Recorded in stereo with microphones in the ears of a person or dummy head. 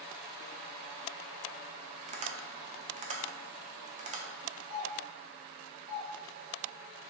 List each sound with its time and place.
2.1 s tapping: 40° right (ahead or behind), 0.6 m
4.7 s a doorbell: 20° right (ahead or behind), 0.9 m